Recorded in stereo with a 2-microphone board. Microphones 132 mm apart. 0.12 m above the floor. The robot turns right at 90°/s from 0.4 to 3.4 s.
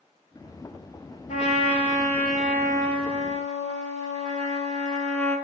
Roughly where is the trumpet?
Left.